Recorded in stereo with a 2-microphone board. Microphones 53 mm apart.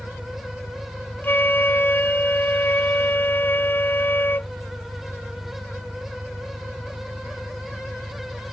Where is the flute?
40° left (ahead or behind).